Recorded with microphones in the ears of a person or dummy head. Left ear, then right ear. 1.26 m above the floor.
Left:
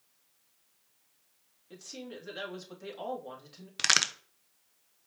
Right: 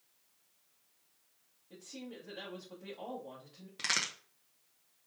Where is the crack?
30° left (ahead or behind), 0.6 m.